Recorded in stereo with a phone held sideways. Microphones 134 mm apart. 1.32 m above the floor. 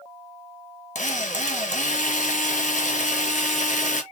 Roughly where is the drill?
Left.